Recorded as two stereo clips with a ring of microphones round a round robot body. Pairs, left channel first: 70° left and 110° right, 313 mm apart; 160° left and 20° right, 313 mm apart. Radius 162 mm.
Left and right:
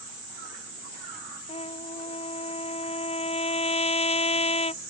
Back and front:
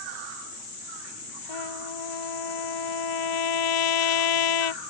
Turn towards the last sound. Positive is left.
turn(degrees=140)